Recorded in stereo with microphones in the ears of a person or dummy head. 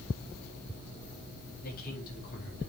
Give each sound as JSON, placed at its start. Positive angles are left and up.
{"t": 1.6, "sound": "a man speaking", "side_deg": 50, "distance_m": 4.0}